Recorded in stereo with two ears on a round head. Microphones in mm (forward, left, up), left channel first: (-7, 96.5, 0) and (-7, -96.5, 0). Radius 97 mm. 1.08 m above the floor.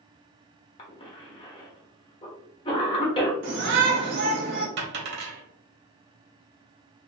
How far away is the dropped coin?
About 1.3 m.